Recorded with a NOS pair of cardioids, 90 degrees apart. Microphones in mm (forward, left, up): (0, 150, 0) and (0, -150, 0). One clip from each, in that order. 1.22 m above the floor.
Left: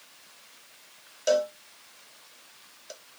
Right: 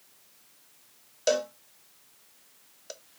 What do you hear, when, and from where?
1.3 s a cowbell: 15° right, 0.8 m